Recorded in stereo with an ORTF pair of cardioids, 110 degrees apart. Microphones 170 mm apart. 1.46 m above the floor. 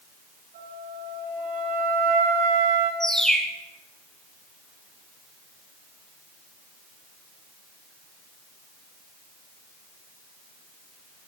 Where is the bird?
5° left, 4 m.